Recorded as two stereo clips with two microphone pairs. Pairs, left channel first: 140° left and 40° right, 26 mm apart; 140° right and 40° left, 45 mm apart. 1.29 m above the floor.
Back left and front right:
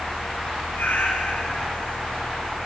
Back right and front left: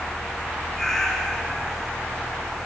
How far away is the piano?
I don't hear a piano.